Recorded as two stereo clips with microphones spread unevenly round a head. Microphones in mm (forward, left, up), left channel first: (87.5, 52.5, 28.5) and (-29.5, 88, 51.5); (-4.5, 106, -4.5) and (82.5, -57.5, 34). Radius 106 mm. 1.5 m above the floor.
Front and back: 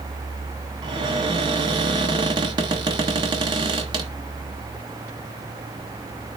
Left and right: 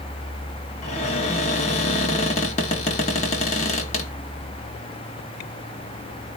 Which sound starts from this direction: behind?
A cupboard door, at 0.8 s.